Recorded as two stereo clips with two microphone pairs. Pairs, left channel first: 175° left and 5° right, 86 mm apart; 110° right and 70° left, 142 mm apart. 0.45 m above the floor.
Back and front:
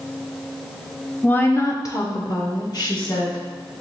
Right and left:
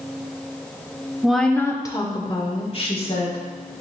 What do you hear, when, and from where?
1.2 s a woman speaking: 140° left, 0.8 m; by 3.4 s 150° right, 2.5 m